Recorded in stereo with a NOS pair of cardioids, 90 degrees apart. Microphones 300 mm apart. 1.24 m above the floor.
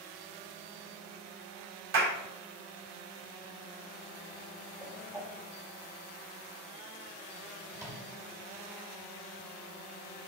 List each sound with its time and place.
1.9 s a clap: 45° right, 5 m
4.8 s a whoosh: 10° right, 3.5 m
7.7 s a microwave: 10° right, 4.5 m